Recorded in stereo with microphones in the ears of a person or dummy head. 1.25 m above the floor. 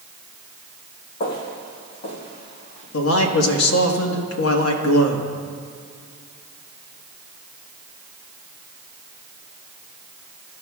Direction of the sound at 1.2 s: 40° left (ahead or behind).